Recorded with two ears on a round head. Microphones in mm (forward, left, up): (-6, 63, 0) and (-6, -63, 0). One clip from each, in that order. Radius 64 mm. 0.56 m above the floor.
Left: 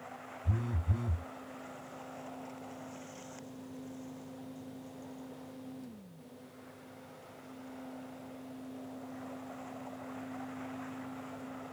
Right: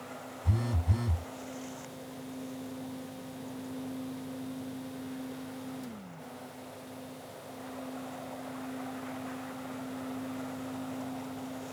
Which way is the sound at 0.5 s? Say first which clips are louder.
Right 5 dB; 80° right.